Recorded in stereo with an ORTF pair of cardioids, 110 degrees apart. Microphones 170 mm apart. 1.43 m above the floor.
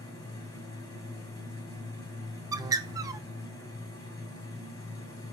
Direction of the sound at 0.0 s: 25° left.